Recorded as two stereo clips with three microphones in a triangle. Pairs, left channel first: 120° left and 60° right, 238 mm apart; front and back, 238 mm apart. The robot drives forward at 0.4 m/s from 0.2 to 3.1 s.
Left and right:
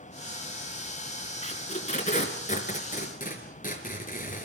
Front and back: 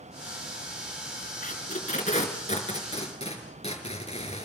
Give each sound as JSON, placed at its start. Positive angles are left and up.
{"t": 1.4, "sound": "tape being pulled", "azimuth_deg": 60, "distance_m": 5.0}